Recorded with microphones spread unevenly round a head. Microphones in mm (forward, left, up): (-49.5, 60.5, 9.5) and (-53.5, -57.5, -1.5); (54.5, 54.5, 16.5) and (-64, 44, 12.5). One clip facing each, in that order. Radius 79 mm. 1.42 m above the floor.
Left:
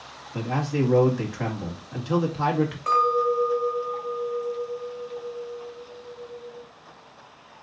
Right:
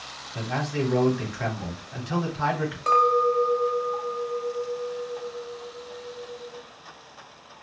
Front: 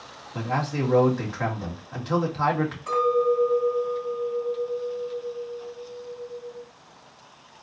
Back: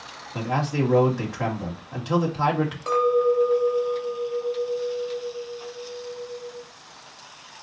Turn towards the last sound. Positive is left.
turn(degrees=-150)